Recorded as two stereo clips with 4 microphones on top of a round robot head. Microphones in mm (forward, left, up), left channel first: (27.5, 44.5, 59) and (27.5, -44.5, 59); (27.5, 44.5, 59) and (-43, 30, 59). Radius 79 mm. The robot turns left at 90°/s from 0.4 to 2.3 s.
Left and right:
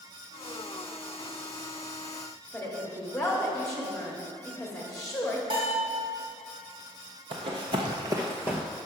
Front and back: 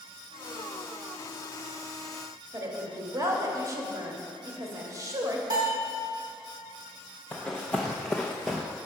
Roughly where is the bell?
Behind right.